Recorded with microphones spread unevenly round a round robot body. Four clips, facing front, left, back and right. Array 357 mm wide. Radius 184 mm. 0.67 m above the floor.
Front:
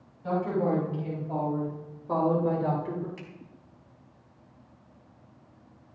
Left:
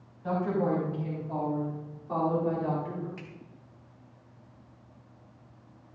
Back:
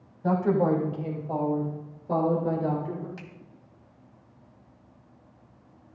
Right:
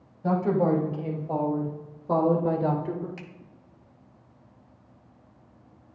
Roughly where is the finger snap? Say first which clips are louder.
Right 2 dB, even; behind right.